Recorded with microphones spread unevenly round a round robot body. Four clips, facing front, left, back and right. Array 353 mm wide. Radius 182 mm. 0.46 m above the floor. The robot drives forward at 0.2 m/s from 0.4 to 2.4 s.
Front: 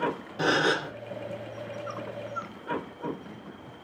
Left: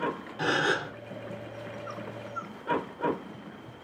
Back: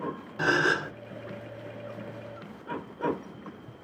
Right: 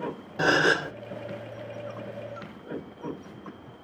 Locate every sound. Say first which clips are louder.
0.4 s a gasp: right 5 dB, even; 80° right, 0.6 m; by 0.9 s 100° right, 0.6 m